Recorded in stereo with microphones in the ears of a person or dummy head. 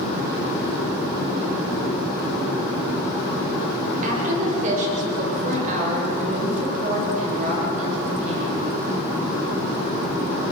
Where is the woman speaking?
45° right (ahead or behind), 7 m.